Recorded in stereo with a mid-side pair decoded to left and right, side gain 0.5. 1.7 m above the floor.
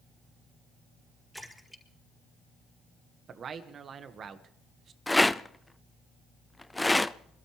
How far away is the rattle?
About 0.5 m.